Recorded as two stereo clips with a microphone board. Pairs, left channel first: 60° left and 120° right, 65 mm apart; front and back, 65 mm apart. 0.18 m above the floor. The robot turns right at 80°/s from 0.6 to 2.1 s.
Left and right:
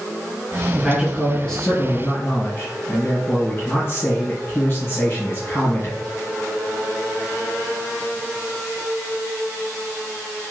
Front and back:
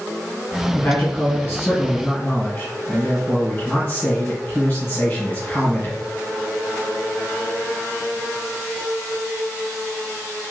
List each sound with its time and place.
0.7 s a man speaking: 65° right, 1.9 m; by 6.0 s 45° left, 1.9 m